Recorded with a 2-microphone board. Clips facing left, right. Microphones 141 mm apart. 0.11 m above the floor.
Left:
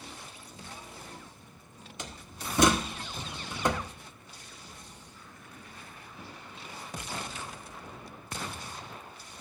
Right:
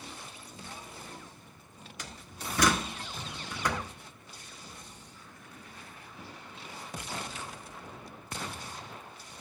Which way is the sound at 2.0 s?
25° left (ahead or behind).